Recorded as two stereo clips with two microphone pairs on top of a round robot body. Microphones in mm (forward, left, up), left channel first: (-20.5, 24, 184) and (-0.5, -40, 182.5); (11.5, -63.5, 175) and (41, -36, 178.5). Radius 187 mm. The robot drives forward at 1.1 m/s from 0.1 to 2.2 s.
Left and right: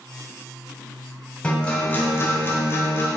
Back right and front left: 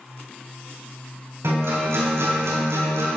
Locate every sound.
1.4 s a guitar: 30° left, 2.0 m; by 3.1 s 50° left, 1.3 m